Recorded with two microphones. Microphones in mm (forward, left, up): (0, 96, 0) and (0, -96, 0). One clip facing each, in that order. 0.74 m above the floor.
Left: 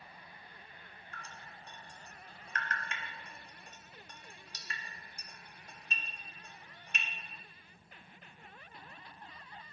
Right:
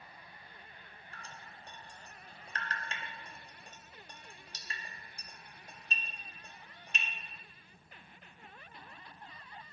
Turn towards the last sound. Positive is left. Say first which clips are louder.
# even
turn(degrees=-35)  # may be behind; listen again after turning